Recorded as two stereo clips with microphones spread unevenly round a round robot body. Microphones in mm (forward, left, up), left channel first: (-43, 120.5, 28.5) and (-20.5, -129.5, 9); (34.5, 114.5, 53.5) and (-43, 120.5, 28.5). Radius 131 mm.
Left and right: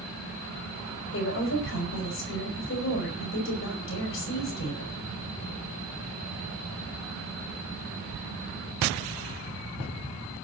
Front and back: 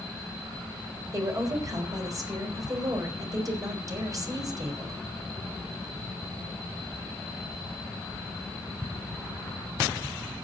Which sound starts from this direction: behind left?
A woman speaking, at 1.1 s.